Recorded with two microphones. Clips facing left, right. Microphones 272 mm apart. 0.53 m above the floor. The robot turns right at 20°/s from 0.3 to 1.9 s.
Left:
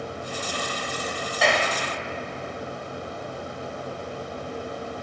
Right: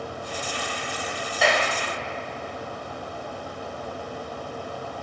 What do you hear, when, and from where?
1.4 s a clap: centre (ahead or behind), 2.5 m; by 1.7 s 5° left (ahead or behind), 2.5 m